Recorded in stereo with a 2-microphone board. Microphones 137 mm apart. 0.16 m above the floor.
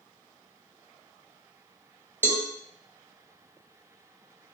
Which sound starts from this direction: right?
A cowbell, at 2.2 s.